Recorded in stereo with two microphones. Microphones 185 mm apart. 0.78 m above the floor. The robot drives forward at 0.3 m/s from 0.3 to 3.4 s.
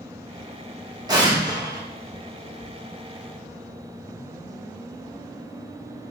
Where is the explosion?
20° right (ahead or behind), 0.8 m.